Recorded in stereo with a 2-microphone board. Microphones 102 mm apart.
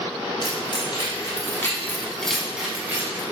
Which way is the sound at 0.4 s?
50° left (ahead or behind).